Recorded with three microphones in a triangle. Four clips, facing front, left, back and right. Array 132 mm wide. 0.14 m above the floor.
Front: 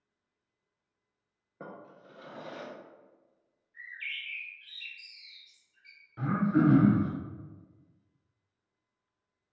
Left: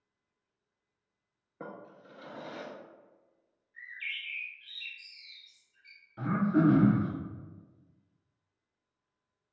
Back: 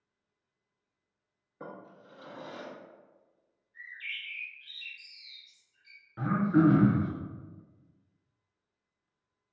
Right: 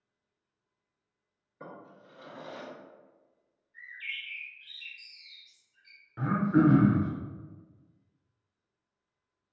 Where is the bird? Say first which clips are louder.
Even, front 1 dB; 60° left, 2.0 m.